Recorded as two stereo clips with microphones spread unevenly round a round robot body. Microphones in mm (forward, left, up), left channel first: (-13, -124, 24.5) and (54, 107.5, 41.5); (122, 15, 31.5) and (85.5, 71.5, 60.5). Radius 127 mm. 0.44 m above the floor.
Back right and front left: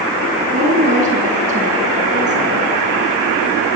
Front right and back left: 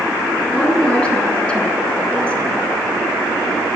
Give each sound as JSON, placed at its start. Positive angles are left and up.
{"t": 0.5, "sound": "a woman speaking", "azimuth_deg": 15, "distance_m": 5.5}